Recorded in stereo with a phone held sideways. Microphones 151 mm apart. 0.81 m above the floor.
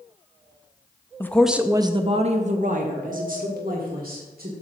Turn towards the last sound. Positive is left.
turn(degrees=-75)  # may be behind; listen again after turning